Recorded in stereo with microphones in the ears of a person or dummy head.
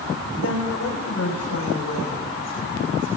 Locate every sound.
0.4 s a woman speaking: 80° left, 5.5 m; by 3.2 s 60° left (ahead or behind), 8 m